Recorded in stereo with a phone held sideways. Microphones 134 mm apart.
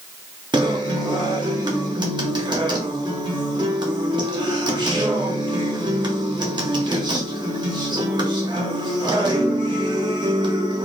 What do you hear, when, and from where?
0.5 s a guitar: 35° right (ahead or behind), 0.9 m